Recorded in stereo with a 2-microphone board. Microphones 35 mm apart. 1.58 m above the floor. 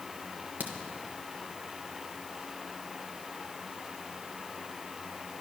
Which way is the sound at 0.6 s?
60° right (ahead or behind).